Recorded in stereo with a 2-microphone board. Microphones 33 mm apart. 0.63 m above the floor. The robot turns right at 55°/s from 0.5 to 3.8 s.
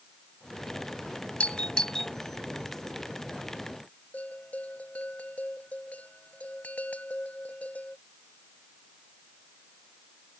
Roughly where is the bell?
Left.